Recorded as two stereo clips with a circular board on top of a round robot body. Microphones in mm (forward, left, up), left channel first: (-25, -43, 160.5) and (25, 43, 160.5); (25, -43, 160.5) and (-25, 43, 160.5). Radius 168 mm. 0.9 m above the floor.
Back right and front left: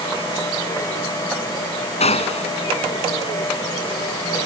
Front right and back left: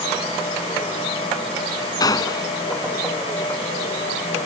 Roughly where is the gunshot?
Behind right.